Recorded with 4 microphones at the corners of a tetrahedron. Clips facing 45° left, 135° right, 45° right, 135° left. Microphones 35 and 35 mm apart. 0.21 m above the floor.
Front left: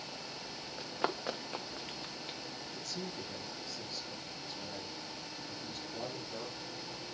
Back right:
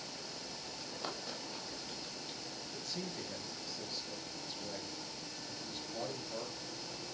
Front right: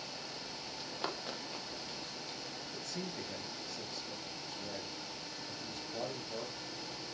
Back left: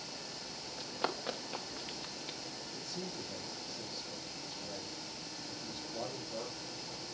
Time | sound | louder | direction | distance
0.8 | running footsteps | front left 9 dB, back left 4 dB | 50° left | 1.5 m
2.7 | a man speaking | even, front right 1 dB | 50° right | 3.5 m